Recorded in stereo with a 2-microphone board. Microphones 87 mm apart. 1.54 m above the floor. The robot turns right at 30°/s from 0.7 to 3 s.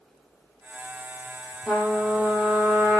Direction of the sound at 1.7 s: 170° left.